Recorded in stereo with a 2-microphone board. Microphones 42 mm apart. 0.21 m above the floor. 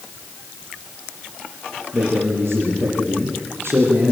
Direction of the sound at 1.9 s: 70° right (ahead or behind).